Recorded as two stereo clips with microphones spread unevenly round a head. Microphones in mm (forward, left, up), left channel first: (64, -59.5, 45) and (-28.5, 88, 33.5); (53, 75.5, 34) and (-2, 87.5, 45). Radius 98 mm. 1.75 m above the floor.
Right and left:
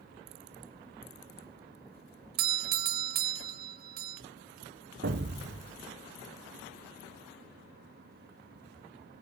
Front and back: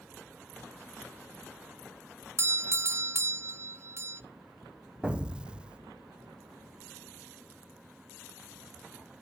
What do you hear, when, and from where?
2.4 s a doorbell: 120° left, 0.6 m
5.0 s an explosion: 110° left, 0.8 m